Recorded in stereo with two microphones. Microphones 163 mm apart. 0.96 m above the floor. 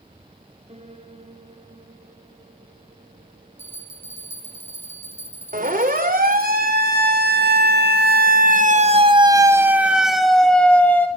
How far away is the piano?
About 3.5 m.